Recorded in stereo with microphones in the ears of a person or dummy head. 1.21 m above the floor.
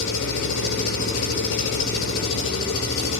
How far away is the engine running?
About 3.5 m.